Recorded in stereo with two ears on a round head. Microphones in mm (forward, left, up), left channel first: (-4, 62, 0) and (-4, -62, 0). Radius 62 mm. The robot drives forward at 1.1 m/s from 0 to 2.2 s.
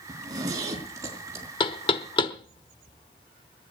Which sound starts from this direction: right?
A zipper, at 0.1 s.